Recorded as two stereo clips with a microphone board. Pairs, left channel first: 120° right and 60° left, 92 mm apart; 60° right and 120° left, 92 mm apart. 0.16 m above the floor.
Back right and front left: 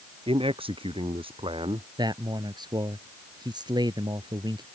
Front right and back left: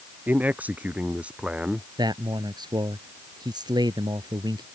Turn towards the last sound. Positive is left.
turn(degrees=90)